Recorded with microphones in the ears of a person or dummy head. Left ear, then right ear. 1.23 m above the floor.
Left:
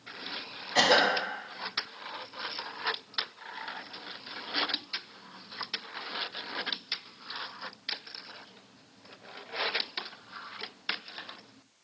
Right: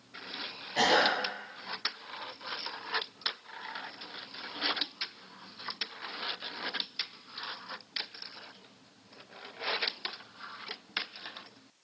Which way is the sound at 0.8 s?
55° left (ahead or behind).